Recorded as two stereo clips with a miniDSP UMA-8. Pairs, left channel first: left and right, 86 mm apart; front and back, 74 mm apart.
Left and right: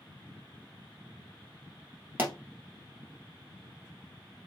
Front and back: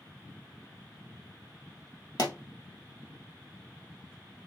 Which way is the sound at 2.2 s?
20° right.